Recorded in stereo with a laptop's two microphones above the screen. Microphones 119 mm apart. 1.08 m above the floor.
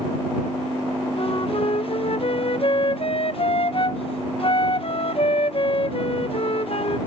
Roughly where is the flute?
Left.